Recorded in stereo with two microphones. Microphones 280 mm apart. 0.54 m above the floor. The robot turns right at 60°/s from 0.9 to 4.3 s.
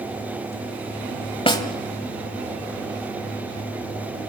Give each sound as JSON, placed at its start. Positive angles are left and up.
{"t": 1.5, "sound": "a snare drum", "side_deg": 20, "distance_m": 1.6}